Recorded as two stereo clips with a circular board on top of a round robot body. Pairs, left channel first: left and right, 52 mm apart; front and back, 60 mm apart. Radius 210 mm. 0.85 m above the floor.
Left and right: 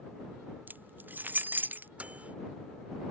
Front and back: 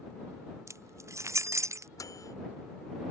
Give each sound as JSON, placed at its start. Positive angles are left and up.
{"t": 0.7, "sound": "keys jangling", "azimuth_deg": -145}
{"t": 2.0, "sound": "a microwave", "azimuth_deg": -25}